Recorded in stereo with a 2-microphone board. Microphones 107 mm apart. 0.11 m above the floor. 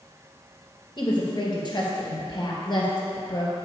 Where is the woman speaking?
45° left (ahead or behind), 2.5 m.